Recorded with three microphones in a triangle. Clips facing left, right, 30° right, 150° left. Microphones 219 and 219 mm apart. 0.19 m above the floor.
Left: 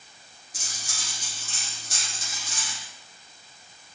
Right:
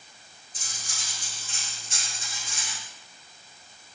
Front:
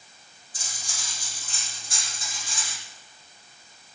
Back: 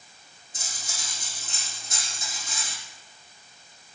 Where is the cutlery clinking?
85° left, 4.5 m.